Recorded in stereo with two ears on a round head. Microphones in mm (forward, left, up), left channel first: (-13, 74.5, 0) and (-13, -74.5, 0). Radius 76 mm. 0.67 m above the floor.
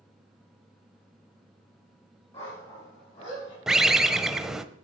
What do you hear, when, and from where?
2.3 s a dog barking: 35° left (ahead or behind), 7 m
3.7 s a bird: 5° right (ahead or behind), 0.7 m